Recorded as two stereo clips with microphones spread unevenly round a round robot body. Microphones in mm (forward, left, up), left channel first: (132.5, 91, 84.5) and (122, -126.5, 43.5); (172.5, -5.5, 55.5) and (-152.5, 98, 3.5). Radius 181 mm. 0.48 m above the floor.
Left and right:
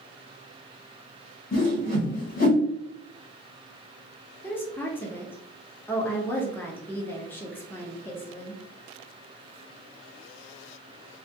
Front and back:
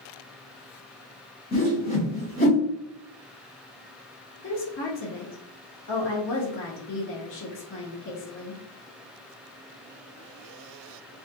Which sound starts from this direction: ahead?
A woman speaking, at 4.4 s.